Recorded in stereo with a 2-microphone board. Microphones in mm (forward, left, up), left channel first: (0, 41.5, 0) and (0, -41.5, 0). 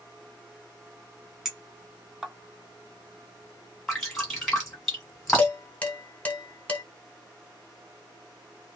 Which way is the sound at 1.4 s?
5° right (ahead or behind).